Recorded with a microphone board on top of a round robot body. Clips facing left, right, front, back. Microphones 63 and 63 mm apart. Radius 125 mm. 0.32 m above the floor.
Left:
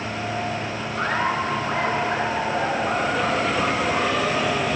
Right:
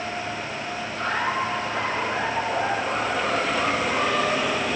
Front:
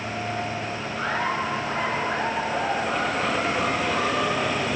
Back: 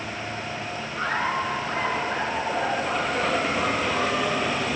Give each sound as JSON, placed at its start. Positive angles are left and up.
{"t": 0.9, "sound": "laughter", "azimuth_deg": 90, "distance_m": 7.5}